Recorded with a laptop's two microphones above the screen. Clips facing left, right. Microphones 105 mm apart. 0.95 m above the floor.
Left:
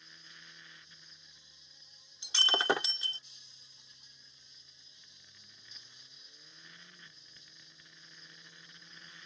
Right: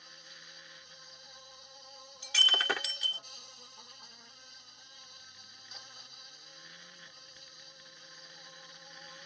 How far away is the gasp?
I don't hear a gasp.